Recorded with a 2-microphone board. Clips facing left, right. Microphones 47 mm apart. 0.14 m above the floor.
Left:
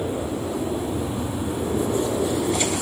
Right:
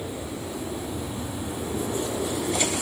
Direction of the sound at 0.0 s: 35° left (ahead or behind).